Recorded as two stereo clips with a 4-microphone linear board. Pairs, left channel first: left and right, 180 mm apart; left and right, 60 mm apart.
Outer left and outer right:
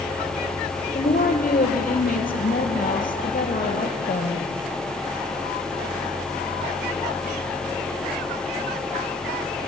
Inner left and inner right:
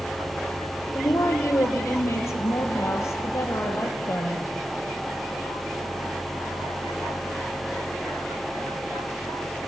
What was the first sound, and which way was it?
A woman speaking, 50° left (ahead or behind).